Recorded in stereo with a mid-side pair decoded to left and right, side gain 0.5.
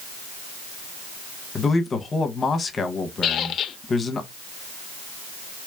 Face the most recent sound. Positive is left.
turn(degrees=60)